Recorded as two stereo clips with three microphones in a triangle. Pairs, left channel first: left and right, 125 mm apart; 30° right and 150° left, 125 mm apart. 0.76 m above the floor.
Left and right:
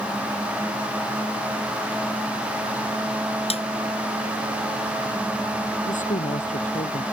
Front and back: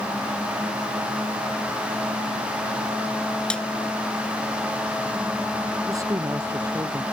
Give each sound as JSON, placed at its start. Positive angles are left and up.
{"t": 3.5, "sound": "a snare drum", "azimuth_deg": 55}
{"t": 5.9, "sound": "a woman speaking", "azimuth_deg": 85}